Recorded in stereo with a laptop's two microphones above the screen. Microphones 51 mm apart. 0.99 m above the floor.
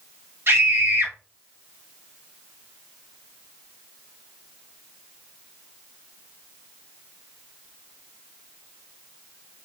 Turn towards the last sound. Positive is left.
turn(degrees=-45)  # may be behind; listen again after turning